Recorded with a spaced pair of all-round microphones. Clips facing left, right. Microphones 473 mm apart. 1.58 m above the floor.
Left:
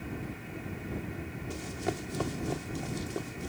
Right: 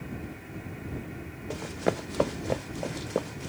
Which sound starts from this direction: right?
Running footsteps, at 1.5 s.